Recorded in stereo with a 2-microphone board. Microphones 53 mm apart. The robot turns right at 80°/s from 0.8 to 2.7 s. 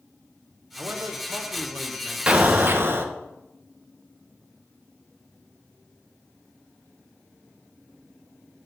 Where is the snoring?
I don't hear snoring.